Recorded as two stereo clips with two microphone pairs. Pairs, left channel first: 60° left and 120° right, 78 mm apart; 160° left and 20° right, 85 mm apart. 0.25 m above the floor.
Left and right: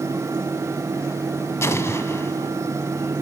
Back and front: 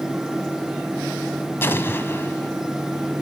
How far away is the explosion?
About 0.9 m.